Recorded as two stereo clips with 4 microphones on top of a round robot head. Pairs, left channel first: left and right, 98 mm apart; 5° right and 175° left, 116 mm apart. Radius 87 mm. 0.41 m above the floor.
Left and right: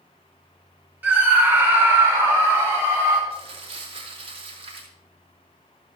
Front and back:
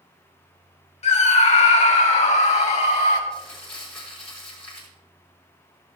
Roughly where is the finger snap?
I don't hear a finger snap.